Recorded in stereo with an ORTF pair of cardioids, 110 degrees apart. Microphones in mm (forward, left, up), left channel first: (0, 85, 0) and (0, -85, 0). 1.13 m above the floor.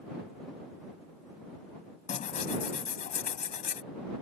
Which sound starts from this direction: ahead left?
Tearing paper, at 2.1 s.